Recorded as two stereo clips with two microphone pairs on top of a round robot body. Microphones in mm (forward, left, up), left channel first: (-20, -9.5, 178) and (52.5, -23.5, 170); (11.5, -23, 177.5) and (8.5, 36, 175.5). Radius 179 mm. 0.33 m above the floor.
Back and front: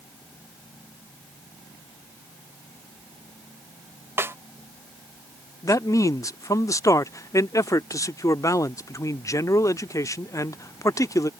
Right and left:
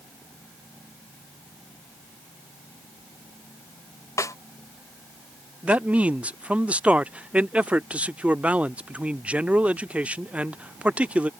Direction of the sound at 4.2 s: 60° right.